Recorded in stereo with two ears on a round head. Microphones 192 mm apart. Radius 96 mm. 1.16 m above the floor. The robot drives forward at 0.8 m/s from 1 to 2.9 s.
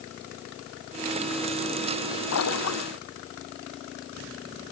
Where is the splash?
75° left (ahead or behind).